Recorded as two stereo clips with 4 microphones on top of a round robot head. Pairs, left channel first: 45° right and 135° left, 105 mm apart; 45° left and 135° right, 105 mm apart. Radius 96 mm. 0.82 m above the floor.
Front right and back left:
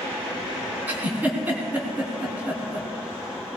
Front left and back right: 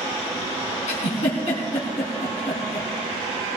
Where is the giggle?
60° left, 4 m.